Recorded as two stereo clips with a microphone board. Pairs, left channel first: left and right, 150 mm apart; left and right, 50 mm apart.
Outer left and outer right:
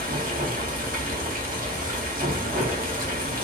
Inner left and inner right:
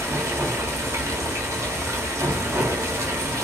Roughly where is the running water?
Right.